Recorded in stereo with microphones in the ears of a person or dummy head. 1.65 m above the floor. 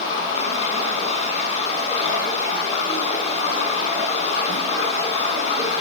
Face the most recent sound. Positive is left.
turn(degrees=40)  # may be behind; listen again after turning